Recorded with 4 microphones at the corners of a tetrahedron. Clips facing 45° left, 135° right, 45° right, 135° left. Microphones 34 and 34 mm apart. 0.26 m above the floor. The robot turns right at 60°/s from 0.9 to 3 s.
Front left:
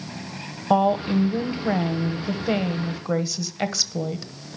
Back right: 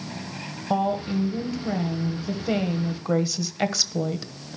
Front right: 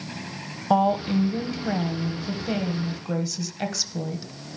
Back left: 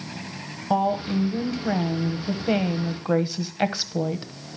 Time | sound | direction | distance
0.7 | a woman speaking | 15° left | 1.0 m